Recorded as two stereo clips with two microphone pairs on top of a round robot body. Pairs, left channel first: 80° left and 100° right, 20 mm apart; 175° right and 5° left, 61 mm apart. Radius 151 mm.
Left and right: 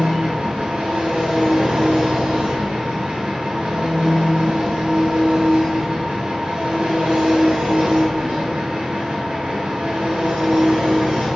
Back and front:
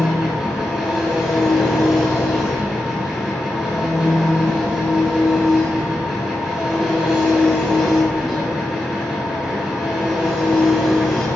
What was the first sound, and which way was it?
An engine running, 85° right.